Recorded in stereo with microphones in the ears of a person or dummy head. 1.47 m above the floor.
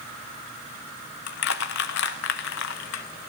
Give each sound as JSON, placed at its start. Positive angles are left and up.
{"t": 1.3, "sound": "crushing", "side_deg": 70, "distance_m": 1.2}